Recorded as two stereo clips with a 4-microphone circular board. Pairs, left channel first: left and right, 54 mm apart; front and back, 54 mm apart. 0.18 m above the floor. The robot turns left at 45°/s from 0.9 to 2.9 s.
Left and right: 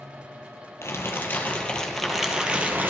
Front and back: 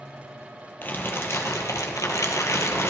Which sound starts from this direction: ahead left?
Crumpling, at 0.8 s.